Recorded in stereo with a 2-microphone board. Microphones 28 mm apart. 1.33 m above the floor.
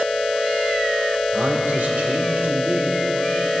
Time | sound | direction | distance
1.3 | a man speaking | 80° right | 1.7 m